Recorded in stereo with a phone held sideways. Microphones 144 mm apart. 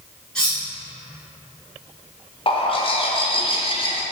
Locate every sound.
0.3 s cutlery clinking: 5° left (ahead or behind), 1.5 m
2.5 s a bird: 40° left (ahead or behind), 0.5 m